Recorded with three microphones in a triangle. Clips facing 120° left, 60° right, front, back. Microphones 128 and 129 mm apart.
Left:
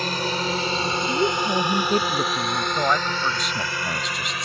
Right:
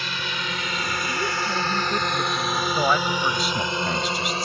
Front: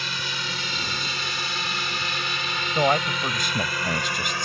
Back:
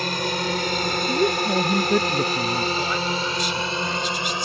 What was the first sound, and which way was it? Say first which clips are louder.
A drone: left 6 dB, back 9 dB; 155° left.